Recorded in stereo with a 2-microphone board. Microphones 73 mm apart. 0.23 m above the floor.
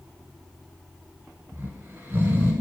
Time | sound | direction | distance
1.5 | snoring | 25° right (ahead or behind) | 0.9 m